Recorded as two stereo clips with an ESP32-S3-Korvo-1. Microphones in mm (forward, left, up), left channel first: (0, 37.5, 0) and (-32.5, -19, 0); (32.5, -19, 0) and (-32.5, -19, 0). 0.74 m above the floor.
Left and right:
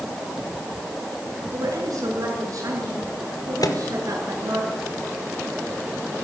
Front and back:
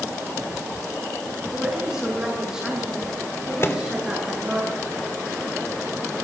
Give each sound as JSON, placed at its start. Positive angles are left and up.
{"t": 1.5, "sound": "a woman speaking", "azimuth_deg": -100, "distance_m": 9.0}
{"t": 3.6, "sound": "a microwave", "azimuth_deg": 50, "distance_m": 1.9}